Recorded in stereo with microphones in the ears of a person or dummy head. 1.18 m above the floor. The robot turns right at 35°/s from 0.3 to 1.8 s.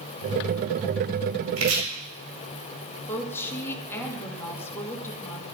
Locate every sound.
1.6 s chopping: 80° right, 4.5 m; by 1.8 s 75° right (ahead or behind), 4.5 m
3.1 s a woman speaking: 15° left (ahead or behind), 2.5 m